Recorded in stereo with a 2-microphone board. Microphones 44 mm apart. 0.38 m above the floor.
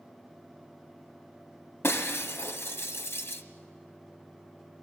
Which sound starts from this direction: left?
Breaking glass, at 1.8 s.